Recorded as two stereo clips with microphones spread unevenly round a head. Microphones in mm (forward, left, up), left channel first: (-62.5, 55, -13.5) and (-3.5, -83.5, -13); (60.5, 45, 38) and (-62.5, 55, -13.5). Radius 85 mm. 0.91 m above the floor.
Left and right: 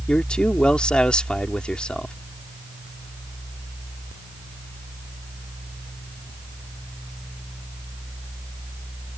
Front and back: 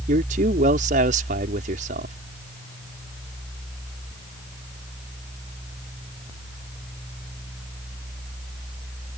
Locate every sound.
0.1 s a man speaking: 165° right